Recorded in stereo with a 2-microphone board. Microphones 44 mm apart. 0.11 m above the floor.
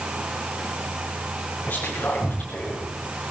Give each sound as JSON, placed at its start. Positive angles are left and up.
{"t": 1.7, "sound": "whispering", "side_deg": 30, "distance_m": 8.5}